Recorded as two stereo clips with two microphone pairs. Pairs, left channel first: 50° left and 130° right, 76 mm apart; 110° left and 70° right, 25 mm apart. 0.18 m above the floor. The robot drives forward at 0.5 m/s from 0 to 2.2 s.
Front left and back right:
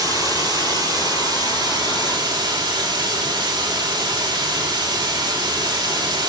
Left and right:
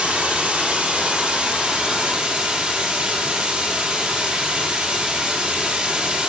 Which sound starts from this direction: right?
Running water, at 0.0 s.